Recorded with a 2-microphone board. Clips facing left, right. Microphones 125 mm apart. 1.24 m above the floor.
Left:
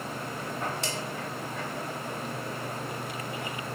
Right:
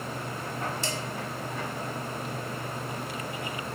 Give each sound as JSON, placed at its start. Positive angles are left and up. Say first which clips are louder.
{"t": 0.8, "sound": "dishes clattering", "louder": "right 1 dB", "side_deg": 65, "distance_m": 2.5}